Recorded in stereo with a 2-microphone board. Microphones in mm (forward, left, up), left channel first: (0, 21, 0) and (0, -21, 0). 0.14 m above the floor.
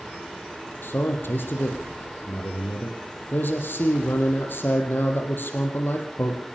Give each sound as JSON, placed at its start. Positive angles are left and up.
{"t": 0.8, "sound": "a man speaking", "side_deg": 55, "distance_m": 4.5}